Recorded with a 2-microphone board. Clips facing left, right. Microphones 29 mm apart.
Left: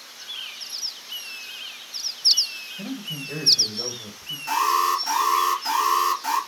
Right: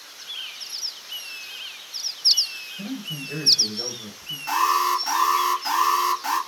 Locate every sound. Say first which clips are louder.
2.8 s a man speaking: even; 5° left (ahead or behind), 1.0 m
4.5 s an alarm: even; 15° right (ahead or behind), 2.0 m